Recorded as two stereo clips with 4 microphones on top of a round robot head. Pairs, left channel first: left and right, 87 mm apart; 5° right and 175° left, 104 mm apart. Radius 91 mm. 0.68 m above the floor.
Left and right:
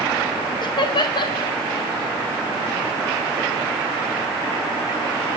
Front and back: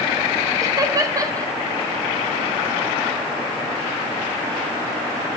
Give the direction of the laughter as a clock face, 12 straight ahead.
8 o'clock.